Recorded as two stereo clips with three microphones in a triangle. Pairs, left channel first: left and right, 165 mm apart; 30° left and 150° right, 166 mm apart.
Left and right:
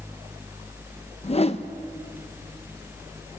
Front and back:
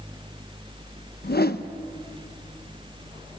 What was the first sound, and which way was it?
A whoosh, 40° left.